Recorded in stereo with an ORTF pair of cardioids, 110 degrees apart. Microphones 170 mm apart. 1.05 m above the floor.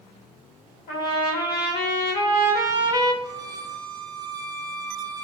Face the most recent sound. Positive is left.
turn(degrees=-25)